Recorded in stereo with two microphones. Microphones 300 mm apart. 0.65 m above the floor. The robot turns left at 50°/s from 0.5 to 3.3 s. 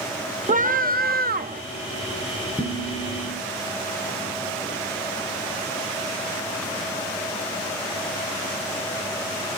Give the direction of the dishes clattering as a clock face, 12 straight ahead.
6 o'clock.